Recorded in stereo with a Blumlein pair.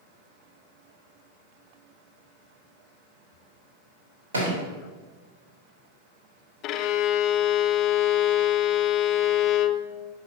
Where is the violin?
40° left, 0.6 m.